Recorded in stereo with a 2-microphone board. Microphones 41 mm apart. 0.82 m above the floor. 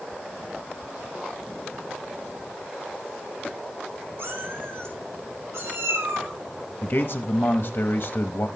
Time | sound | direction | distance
4.2 | a cat meowing | 70° right (ahead or behind) | 3 m
6.8 | a man speaking | 50° left (ahead or behind) | 1.0 m